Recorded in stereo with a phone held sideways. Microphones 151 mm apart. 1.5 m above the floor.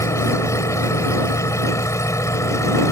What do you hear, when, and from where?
0.0 s an engine running: 20° left (ahead or behind)